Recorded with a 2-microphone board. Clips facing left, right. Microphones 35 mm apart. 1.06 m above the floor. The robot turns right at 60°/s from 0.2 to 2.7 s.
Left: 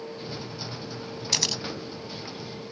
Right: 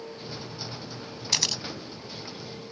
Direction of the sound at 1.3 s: 10° right (ahead or behind).